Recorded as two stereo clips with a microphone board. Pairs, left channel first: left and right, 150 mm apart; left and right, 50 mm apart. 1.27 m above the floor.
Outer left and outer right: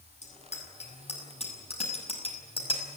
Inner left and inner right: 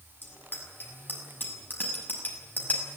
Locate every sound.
0.2 s a bicycle bell: 45° left (ahead or behind), 7 m; by 2.8 s 35° left (ahead or behind), 5.5 m